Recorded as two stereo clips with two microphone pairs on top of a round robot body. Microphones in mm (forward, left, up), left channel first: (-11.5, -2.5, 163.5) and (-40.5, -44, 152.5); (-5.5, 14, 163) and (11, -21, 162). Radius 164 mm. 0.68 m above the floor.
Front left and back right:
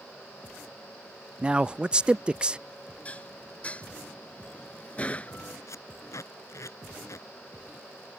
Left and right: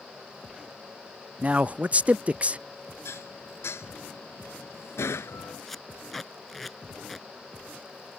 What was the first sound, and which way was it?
A man speaking, 90° right.